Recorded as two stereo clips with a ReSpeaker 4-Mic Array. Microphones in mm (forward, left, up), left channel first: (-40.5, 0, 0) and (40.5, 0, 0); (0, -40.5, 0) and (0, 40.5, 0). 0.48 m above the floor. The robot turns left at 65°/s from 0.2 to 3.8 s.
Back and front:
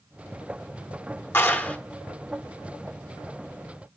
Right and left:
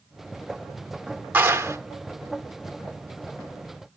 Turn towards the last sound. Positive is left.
turn(degrees=-20)